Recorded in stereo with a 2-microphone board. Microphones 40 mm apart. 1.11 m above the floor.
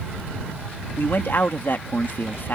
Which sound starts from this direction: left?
A man speaking, at 1.0 s.